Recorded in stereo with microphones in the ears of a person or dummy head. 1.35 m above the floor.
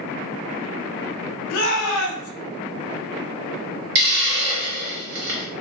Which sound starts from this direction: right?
A hiss, at 4.0 s.